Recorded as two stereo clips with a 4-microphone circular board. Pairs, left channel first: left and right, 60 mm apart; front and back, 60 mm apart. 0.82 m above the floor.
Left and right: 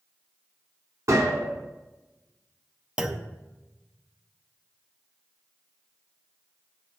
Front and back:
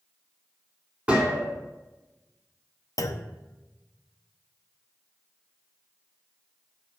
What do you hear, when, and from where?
1.1 s a gunshot: 115° right, 3 m
3.0 s a clunk: 15° right, 0.7 m